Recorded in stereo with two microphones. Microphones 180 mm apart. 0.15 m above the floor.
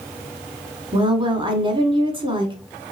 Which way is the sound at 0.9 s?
30° right (ahead or behind).